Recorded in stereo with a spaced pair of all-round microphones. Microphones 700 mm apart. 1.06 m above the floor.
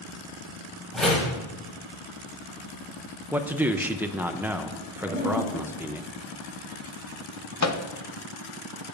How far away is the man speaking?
About 0.6 m.